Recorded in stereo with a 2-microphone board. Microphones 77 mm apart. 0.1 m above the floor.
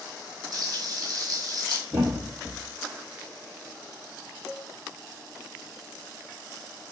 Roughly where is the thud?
Right.